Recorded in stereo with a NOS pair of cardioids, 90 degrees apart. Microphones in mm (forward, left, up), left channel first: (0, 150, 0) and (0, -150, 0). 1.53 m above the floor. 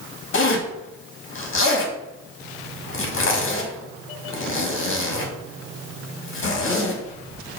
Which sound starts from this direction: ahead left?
A zipper, at 0.3 s.